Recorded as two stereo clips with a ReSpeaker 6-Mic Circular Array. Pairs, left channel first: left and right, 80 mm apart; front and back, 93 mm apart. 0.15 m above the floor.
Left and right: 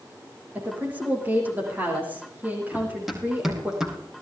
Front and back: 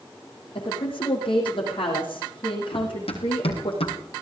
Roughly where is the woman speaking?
Ahead right.